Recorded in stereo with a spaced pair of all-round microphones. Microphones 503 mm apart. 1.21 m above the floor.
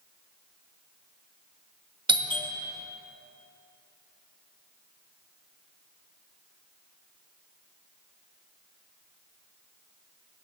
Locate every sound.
2.1 s a doorbell: 10° right (ahead or behind), 0.6 m